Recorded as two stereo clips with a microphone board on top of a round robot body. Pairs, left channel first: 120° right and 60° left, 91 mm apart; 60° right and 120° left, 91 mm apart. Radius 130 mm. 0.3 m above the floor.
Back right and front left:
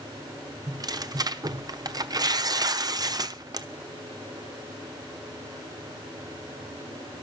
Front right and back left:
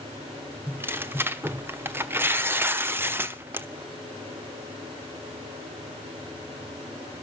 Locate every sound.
0.7 s tearing paper: 65° left, 1.4 m